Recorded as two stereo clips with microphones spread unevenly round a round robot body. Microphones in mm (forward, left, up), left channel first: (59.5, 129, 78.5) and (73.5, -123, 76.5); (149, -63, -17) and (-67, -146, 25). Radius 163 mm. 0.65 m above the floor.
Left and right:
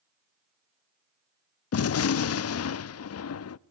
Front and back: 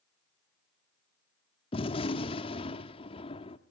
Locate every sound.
1.7 s a gunshot: 80° left, 0.6 m